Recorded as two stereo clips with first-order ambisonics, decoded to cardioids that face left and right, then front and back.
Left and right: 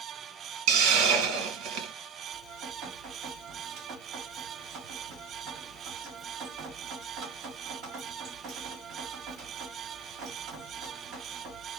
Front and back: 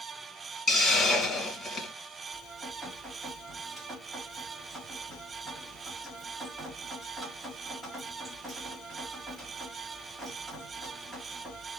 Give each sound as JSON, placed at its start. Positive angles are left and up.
{"t": 0.7, "sound": "a hiss", "azimuth_deg": -75, "distance_m": 1.3}
{"t": 2.3, "sound": "dripping", "azimuth_deg": -105, "distance_m": 2.0}